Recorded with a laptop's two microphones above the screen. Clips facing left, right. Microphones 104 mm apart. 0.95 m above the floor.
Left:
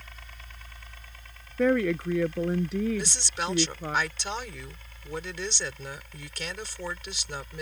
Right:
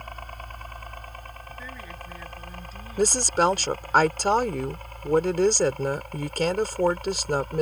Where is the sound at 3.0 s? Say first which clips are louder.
Right 11 dB; 55° right (ahead or behind).